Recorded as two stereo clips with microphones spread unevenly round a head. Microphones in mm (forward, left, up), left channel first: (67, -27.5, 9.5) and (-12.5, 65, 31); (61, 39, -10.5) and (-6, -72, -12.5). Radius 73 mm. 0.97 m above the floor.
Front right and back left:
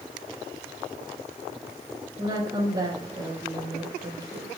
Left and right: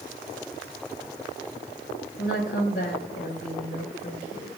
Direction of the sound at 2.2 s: 75° left.